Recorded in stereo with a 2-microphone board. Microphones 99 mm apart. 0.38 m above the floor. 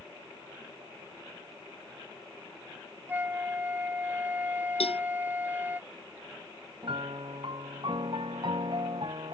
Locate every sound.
3.1 s a flute: 20° right (ahead or behind)
4.8 s a cowbell: 80° left
6.8 s a piano: 55° right (ahead or behind)